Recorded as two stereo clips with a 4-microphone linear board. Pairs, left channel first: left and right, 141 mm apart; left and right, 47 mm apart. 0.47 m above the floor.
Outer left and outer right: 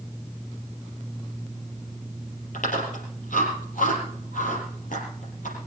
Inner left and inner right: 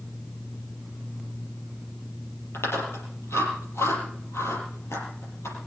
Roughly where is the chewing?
Left.